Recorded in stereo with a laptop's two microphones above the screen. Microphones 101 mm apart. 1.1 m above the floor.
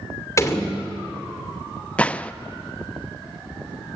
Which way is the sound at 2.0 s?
15° left (ahead or behind).